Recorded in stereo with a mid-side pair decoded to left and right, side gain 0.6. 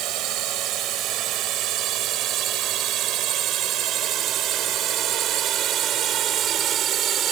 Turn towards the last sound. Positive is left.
turn(degrees=-50)